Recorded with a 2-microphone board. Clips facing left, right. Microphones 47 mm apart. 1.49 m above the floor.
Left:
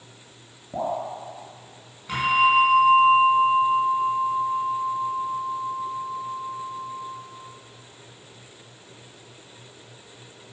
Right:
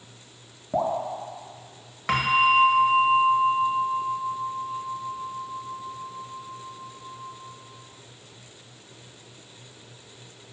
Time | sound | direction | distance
0.7 | dripping | 25° right (ahead or behind) | 1.3 m
2.1 | a bell | 80° right | 1.4 m